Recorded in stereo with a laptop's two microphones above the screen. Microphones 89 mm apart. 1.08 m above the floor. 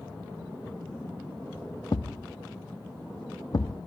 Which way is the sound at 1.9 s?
50° left (ahead or behind).